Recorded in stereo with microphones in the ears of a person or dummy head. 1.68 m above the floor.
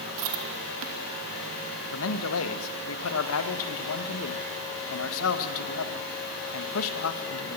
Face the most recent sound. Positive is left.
turn(degrees=75)  # may be behind; listen again after turning